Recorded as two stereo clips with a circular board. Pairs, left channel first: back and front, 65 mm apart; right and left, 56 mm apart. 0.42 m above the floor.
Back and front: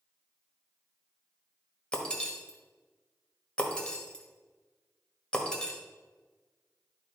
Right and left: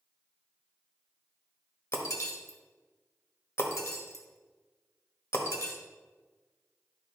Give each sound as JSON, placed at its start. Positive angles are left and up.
{"t": 1.9, "sound": "breaking glass", "azimuth_deg": -105, "distance_m": 1.2}